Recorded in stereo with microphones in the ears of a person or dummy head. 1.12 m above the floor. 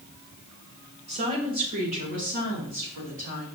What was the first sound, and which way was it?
A woman speaking, 30° right (ahead or behind).